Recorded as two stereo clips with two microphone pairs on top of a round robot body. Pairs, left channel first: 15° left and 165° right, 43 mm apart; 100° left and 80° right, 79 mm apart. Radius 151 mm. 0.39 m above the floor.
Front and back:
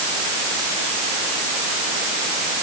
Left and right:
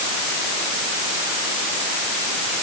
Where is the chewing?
I don't hear chewing.